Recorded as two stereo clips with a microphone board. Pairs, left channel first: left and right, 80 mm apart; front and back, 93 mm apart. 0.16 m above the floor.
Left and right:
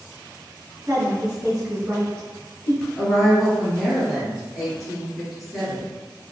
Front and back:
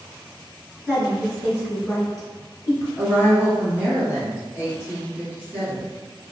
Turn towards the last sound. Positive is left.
turn(degrees=-165)